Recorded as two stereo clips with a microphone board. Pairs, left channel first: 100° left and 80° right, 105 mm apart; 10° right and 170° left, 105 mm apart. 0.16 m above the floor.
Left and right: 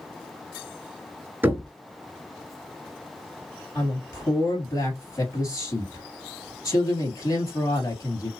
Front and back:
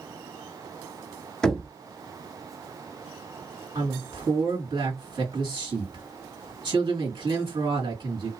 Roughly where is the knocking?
Right.